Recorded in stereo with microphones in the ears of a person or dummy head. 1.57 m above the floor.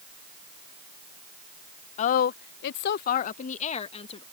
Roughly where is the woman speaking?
Left.